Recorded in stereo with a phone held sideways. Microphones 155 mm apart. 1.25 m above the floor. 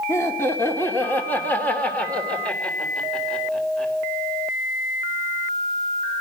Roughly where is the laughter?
Centre.